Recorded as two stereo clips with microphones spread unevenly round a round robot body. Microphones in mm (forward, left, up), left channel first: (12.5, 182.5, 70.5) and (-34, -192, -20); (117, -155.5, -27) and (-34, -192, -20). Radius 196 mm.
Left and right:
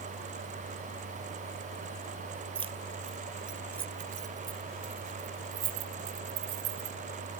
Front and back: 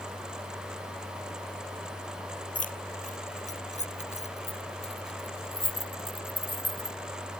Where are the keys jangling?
20° right; by 7.0 s 45° right.